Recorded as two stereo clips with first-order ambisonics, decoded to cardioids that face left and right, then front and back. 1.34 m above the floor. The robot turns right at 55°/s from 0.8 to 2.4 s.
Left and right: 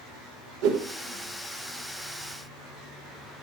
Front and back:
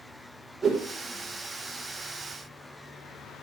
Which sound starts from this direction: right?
A whoosh, at 0.6 s.